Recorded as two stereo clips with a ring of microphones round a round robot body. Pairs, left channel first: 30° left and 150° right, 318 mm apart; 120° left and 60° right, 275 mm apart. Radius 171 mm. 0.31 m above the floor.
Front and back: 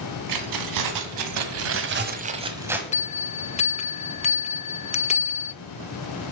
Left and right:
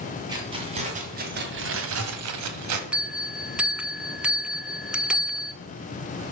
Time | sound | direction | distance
0.3 | keys jangling | 135° right | 2 m
2.9 | a bell | 20° left | 0.7 m